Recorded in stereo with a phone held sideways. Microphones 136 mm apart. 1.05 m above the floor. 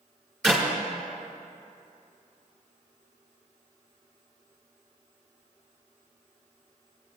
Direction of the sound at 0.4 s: Centre (ahead or behind).